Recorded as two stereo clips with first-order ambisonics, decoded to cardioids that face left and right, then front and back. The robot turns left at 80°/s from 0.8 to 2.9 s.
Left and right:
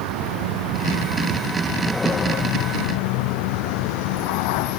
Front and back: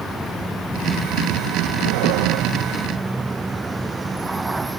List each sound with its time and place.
0.0 s a vehicle: 90° right; by 4.8 s 100° left